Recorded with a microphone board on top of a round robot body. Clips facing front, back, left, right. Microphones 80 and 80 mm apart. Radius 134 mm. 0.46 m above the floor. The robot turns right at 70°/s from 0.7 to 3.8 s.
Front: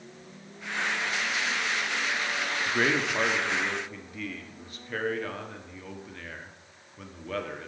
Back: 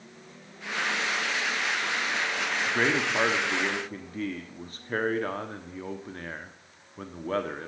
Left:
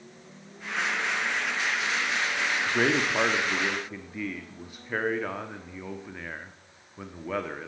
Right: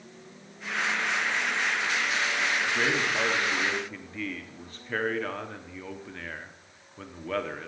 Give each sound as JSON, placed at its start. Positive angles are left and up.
{"t": 2.7, "sound": "a man speaking", "azimuth_deg": 85, "distance_m": 1.1}